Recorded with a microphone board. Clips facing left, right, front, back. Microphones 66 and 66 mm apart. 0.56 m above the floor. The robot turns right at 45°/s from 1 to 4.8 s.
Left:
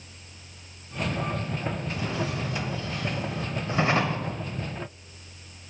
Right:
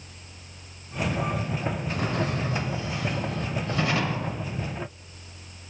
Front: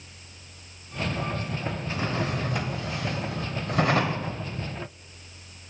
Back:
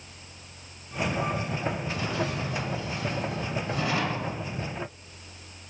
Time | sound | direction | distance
1.9 | a drawer | 55° right | 1.2 m